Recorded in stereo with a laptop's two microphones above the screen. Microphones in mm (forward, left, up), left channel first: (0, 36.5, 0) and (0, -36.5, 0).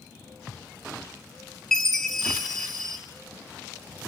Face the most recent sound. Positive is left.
turn(degrees=5)  # may be behind; listen again after turning